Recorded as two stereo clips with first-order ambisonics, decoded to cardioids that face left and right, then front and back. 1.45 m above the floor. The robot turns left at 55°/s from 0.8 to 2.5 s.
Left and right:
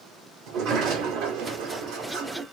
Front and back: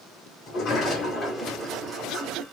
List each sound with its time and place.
0.5 s a sliding door: 50° right, 1.6 m; by 2.4 s 140° right, 1.6 m